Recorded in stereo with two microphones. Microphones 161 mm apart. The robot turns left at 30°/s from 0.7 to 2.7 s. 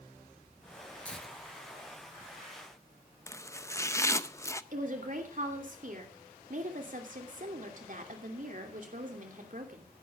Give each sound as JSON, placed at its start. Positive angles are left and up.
{"t": 1.1, "sound": "tearing paper", "side_deg": 10, "distance_m": 3.5}
{"t": 3.3, "sound": "chopping", "side_deg": 15, "distance_m": 0.6}
{"t": 4.7, "sound": "a woman speaking", "side_deg": -55, "distance_m": 2.5}